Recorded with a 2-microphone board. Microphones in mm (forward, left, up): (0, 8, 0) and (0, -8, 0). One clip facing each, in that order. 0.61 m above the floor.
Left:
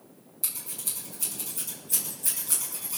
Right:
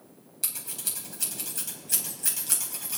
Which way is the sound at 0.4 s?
45° right (ahead or behind).